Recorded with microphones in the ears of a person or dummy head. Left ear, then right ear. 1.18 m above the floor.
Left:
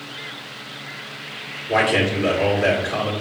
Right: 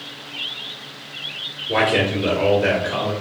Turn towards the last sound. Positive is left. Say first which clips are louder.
# even
turn(degrees=15)  # may be behind; listen again after turning